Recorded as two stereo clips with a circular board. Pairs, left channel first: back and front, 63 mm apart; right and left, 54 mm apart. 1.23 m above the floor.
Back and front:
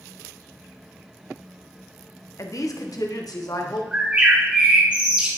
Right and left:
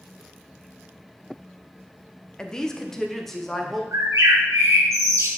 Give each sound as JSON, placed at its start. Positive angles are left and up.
{"t": 2.4, "sound": "a woman speaking", "azimuth_deg": -165, "distance_m": 0.9}
{"t": 3.9, "sound": "a bird", "azimuth_deg": 70, "distance_m": 2.5}